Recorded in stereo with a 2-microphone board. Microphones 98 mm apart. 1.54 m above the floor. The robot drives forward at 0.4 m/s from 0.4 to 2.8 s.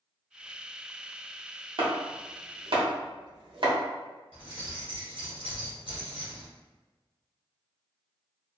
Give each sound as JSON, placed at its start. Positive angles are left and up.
{"t": 1.8, "sound": "chopping", "side_deg": -55, "distance_m": 0.8}
{"t": 4.3, "sound": "keys jangling", "side_deg": -65, "distance_m": 1.3}